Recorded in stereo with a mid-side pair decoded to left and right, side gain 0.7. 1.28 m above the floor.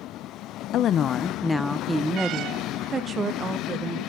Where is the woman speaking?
50° left, 0.6 m; by 4.0 s 35° right, 1.9 m.